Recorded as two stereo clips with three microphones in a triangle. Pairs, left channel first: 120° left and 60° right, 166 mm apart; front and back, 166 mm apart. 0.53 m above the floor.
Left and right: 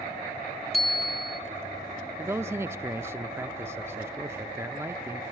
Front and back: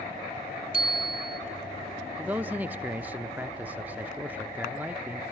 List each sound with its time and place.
0.7 s a bicycle bell: 30° left, 2 m
2.2 s a man speaking: 115° right, 0.8 m